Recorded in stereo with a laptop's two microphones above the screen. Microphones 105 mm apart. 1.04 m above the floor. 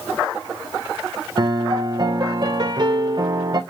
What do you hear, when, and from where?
1.4 s a piano: 45° right (ahead or behind), 0.7 m